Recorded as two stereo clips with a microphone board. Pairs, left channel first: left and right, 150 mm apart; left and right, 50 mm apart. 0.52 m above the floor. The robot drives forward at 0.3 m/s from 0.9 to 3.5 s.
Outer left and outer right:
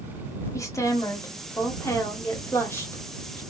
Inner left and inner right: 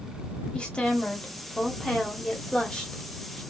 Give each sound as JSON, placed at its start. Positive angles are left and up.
{"t": 0.5, "sound": "a woman speaking", "side_deg": 20, "distance_m": 1.0}